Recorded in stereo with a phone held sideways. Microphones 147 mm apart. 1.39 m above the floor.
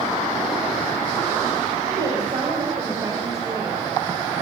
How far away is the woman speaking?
About 8 m.